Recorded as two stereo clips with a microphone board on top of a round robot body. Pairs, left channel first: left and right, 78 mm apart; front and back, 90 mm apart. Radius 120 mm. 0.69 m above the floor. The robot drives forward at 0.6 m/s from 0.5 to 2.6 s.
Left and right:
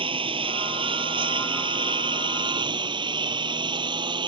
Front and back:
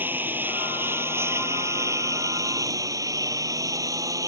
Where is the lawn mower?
110° right; by 4.3 s 125° right.